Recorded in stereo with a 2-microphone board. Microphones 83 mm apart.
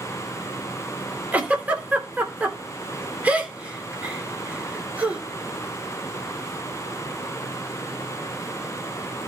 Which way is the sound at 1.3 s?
15° right (ahead or behind).